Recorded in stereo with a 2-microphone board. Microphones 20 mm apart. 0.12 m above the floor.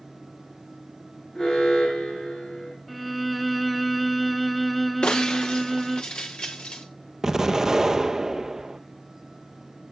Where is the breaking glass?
50° left (ahead or behind), 1.5 m.